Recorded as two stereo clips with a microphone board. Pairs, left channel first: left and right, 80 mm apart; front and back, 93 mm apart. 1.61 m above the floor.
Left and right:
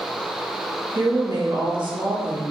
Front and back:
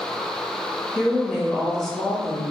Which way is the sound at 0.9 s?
85° right.